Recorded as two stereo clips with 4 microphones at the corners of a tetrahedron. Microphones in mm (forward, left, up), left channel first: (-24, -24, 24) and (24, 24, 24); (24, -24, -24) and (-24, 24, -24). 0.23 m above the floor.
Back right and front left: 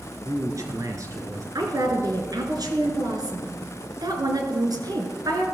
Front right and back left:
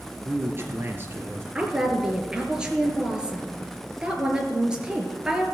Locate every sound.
0.2 s a man speaking: 80° left, 3 m
1.6 s a woman speaking: 60° left, 3.5 m